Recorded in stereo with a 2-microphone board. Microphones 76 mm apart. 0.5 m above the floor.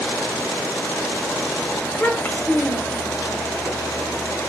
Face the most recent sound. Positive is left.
turn(degrees=30)  # may be behind; listen again after turning